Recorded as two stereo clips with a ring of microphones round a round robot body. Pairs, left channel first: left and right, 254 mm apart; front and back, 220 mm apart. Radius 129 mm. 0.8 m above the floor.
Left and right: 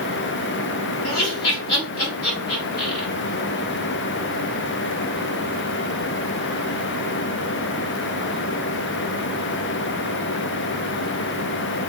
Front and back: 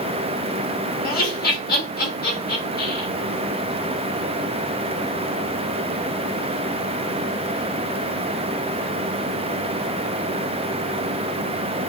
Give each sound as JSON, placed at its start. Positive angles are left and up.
{"t": 1.0, "sound": "laughter", "azimuth_deg": 40, "distance_m": 1.4}